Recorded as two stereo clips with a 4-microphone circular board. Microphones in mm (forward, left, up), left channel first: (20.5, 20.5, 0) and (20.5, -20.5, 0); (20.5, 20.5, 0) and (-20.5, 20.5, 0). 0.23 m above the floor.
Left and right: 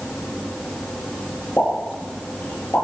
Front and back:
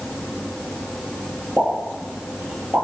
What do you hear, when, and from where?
1.6 s a pop: 130° left, 6.5 m